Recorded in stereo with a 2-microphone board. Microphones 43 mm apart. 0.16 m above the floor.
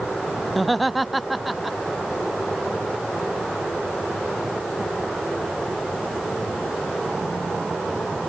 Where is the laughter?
Centre (ahead or behind).